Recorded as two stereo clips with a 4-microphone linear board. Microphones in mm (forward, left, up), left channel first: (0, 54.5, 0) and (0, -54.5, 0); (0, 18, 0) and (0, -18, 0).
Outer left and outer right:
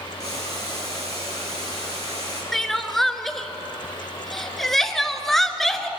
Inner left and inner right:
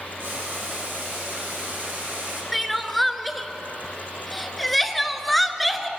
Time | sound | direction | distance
0.2 | boiling | 70° right (ahead or behind) | 3 m
2.5 | crying | 5° left (ahead or behind) | 0.6 m